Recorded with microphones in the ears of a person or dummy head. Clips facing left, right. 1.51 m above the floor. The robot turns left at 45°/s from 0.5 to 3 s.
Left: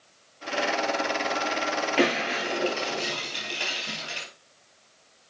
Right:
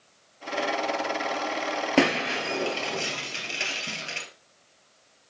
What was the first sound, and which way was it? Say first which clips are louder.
Breaking glass: right 2 dB; 90° right.